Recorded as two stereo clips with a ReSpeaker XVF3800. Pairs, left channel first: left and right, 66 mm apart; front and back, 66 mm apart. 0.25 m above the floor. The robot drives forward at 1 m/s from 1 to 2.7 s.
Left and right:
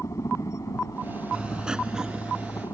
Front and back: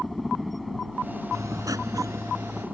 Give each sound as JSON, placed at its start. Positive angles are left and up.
{"t": 0.0, "sound": "a helicopter", "azimuth_deg": 90}
{"t": 1.3, "sound": "writing", "azimuth_deg": -165}